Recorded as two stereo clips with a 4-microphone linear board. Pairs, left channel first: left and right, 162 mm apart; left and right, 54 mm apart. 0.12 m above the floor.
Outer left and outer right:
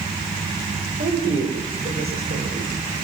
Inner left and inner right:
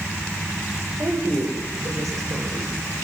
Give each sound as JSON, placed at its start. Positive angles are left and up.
{"t": 1.0, "sound": "a woman speaking", "side_deg": -75, "distance_m": 6.5}